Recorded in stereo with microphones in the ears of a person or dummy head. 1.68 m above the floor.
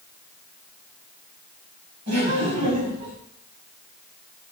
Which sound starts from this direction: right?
Laughter, at 2.1 s.